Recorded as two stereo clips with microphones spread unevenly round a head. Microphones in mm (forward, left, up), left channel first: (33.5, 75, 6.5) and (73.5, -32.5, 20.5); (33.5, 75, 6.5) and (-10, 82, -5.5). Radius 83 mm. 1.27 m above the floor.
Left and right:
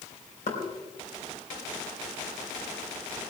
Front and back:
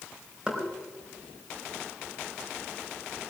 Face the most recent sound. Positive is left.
turn(degrees=100)